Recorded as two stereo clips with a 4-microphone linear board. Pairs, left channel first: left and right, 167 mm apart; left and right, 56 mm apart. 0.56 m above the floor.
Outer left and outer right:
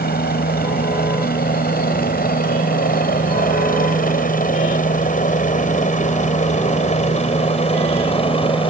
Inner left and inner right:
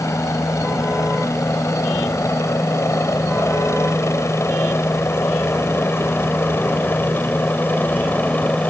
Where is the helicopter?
65° left (ahead or behind); by 8.7 s 30° left (ahead or behind).